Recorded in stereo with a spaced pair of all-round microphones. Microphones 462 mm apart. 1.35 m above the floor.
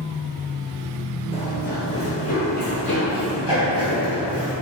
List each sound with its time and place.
1.3 s running footsteps: 10° left (ahead or behind), 1.8 m; by 4.5 s 50° left (ahead or behind), 4.5 m